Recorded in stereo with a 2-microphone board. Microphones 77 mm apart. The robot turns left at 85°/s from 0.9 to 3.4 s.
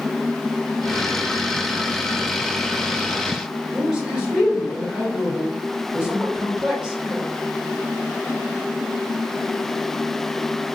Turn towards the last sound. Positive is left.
turn(degrees=-10)  # may be behind; listen again after turning